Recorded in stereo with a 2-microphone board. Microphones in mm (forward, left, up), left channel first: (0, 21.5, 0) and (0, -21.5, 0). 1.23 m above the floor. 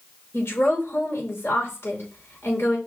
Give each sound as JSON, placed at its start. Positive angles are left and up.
{"t": 0.3, "sound": "a woman speaking", "side_deg": 70, "distance_m": 4.5}